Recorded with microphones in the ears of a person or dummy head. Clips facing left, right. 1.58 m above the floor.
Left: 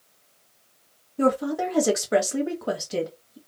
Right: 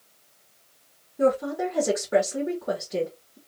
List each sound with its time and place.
1.2 s a woman speaking: 75° left (ahead or behind), 1.0 m